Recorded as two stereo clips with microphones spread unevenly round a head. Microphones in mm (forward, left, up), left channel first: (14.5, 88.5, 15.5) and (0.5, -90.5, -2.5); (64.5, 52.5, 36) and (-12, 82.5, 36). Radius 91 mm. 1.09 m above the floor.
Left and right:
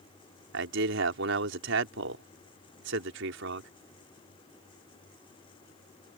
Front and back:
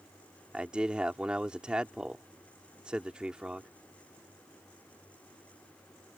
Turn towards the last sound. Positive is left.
turn(degrees=-115)